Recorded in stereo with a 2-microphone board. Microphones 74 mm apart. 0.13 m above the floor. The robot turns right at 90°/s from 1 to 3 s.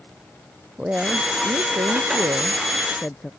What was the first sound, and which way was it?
A woman speaking, 165° right.